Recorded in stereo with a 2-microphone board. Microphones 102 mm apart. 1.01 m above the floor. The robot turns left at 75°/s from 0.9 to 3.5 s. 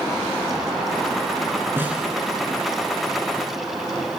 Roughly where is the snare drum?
Right.